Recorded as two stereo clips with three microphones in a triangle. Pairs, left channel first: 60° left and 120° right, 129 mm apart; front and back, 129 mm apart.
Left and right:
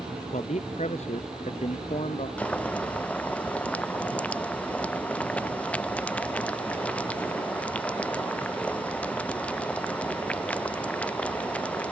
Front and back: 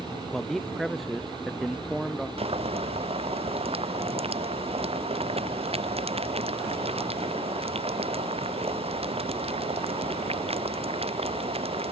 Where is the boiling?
140° left.